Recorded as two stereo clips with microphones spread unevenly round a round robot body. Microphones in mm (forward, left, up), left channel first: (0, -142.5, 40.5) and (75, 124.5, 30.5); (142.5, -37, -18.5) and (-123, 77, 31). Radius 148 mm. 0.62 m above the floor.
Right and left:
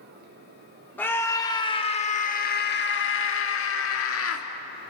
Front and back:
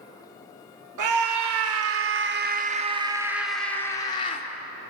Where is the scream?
170° left, 1.9 m; by 4.5 s 80° right, 1.9 m.